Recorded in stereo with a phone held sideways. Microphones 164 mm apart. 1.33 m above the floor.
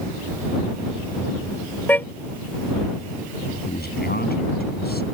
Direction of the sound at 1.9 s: 10° left (ahead or behind).